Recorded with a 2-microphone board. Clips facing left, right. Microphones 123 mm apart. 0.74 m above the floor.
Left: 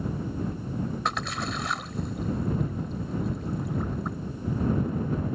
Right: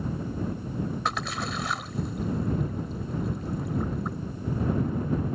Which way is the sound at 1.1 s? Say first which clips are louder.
Even; centre (ahead or behind).